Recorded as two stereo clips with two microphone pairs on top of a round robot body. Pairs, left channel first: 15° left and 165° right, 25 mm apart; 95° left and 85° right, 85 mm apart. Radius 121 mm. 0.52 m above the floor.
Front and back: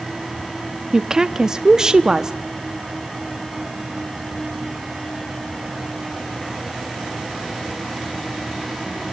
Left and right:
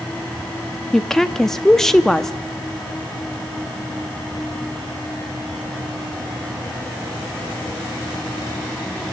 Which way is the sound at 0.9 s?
170° right.